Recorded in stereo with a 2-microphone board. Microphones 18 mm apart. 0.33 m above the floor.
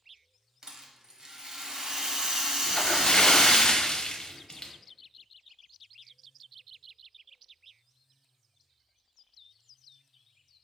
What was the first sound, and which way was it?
A rattle, 50° right (ahead or behind).